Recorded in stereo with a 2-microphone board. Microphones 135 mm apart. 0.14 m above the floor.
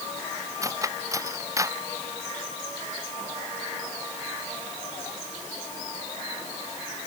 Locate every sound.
0.6 s cutlery clinking: 25° right (ahead or behind)